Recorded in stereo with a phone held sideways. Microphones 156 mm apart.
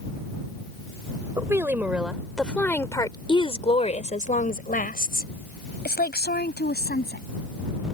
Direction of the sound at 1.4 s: 20° right (ahead or behind).